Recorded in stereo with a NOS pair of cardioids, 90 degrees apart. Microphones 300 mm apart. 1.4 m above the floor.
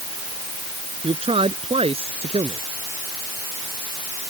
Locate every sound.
1.0 s a man speaking: 20° right